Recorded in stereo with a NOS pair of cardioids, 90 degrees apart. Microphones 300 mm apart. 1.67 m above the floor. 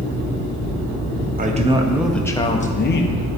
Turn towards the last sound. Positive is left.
turn(degrees=50)